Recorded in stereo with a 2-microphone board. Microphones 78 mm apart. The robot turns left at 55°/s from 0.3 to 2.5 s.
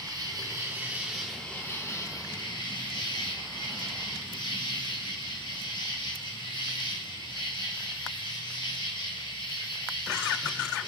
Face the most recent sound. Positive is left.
turn(degrees=115)